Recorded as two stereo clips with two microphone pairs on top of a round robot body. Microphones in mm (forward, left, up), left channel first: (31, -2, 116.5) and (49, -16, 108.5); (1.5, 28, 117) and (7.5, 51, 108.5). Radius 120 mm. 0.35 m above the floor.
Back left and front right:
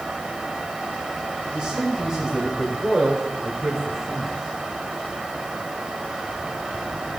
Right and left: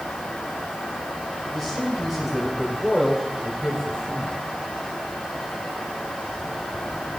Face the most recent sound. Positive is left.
turn(degrees=-65)